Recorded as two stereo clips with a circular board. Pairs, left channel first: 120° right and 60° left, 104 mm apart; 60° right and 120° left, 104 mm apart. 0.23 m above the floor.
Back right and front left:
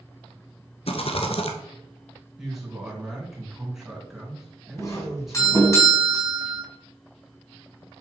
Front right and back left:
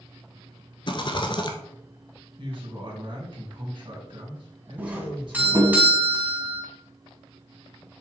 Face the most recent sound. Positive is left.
turn(degrees=-170)